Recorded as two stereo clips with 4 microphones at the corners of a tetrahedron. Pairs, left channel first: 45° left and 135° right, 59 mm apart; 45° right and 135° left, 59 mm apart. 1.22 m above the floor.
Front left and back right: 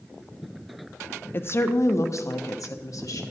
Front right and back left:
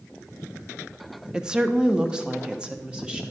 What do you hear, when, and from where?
1.3 s a woman speaking: 65° left, 0.6 m; by 3.2 s 60° left, 1.6 m